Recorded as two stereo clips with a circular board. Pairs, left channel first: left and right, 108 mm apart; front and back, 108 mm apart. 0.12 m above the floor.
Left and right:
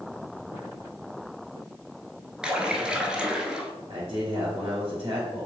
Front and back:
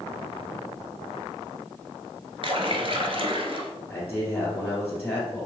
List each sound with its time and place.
2.4 s a splash: 170° right, 0.6 m
3.9 s a man speaking: 75° right, 1.8 m